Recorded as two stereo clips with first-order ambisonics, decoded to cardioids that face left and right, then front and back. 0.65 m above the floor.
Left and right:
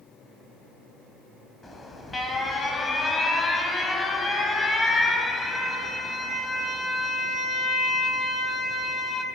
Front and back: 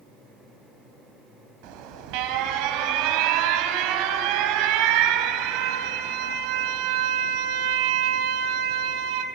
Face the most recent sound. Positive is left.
turn(degrees=170)